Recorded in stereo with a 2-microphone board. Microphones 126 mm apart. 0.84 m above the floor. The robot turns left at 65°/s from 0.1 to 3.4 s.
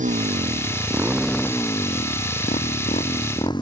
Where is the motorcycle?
80° right; by 3.6 s 35° left (ahead or behind).